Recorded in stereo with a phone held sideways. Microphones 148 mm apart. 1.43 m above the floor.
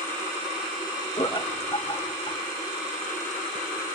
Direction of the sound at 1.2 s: 35° left (ahead or behind).